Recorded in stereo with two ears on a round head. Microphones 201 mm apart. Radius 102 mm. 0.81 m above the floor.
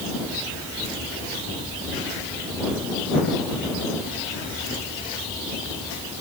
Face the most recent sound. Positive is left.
No sound to turn to.